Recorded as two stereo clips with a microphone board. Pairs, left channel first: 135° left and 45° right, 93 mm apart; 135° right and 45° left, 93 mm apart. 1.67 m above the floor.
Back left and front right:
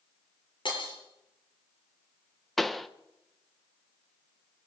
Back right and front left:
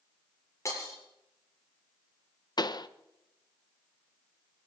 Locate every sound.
0.7 s breaking glass: 165° left, 7.5 m
2.6 s a pop: 135° right, 0.9 m